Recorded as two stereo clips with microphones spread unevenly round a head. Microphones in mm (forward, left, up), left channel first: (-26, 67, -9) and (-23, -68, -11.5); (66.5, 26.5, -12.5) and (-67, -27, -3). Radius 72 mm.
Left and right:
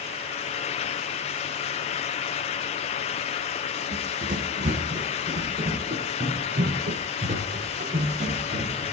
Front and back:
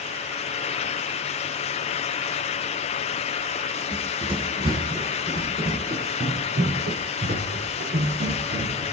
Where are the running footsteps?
105° right, 3 m; by 8.8 s 135° right, 5 m.